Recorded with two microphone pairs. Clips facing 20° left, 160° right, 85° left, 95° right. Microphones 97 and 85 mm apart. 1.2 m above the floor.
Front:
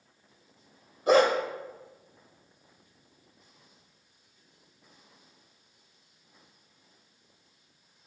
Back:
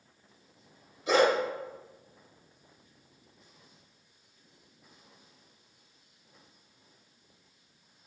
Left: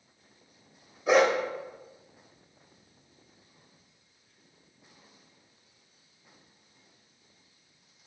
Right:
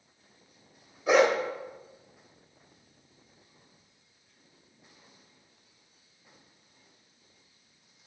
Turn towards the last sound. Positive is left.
turn(degrees=-5)